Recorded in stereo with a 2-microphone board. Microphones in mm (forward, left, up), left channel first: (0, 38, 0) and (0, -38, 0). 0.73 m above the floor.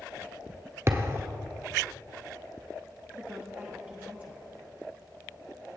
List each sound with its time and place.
0.9 s a thud: 35° right (ahead or behind), 0.8 m
3.1 s a woman speaking: 25° right (ahead or behind), 0.8 m